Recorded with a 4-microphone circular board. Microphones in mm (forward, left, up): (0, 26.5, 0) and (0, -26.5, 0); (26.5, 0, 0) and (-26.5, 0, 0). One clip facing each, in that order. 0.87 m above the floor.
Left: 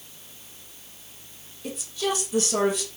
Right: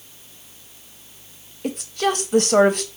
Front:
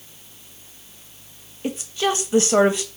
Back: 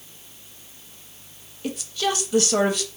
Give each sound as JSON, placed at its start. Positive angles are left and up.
{"t": 1.6, "sound": "a woman speaking", "azimuth_deg": -65, "distance_m": 0.6}